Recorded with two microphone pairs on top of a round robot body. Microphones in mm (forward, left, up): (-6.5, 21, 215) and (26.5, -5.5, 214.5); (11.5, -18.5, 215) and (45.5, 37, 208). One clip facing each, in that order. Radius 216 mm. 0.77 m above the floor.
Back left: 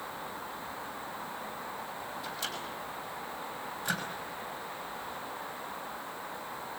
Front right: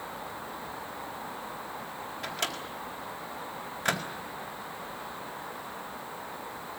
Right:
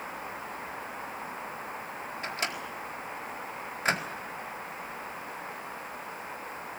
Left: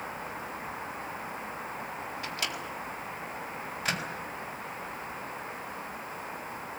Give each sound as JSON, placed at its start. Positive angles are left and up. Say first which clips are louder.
{"t": 2.2, "sound": "a microwave", "louder": "front right 6 dB, right 3 dB", "azimuth_deg": -65, "distance_m": 4.0}